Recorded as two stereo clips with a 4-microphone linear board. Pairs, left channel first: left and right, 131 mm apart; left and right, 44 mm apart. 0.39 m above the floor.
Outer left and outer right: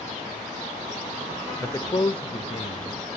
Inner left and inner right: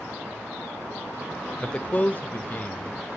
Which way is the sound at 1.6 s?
15° left (ahead or behind).